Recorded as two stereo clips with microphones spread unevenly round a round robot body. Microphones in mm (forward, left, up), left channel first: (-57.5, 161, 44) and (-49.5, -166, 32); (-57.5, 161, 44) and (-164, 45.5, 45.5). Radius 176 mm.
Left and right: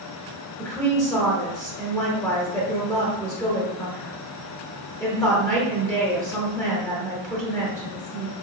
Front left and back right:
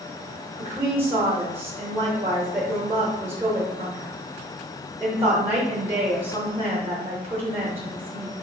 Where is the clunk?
No clunk in this recording.